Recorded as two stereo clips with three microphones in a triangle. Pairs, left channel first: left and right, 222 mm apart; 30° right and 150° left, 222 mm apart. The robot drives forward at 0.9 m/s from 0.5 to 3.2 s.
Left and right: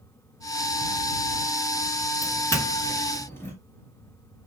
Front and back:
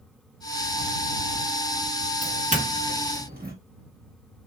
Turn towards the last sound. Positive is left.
turn(degrees=165)